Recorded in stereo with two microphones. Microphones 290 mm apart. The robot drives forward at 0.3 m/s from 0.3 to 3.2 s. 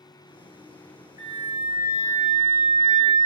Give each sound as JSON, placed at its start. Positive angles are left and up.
{"t": 1.2, "sound": "a flute", "side_deg": -15, "distance_m": 1.5}